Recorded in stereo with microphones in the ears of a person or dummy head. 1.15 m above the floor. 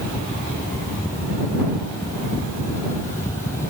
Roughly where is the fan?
Centre.